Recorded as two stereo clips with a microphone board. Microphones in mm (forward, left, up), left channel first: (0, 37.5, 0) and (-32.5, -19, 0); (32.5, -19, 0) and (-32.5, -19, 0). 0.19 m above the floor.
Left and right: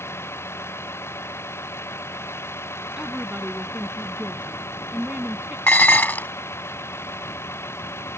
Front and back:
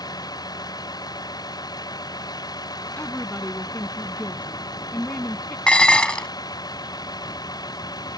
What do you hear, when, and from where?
0.0 s a vehicle: 10° left
3.0 s a woman speaking: 55° right
5.7 s dishes clattering: 60° left